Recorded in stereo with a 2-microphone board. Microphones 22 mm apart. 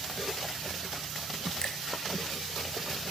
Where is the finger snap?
40° left (ahead or behind), 2.5 m.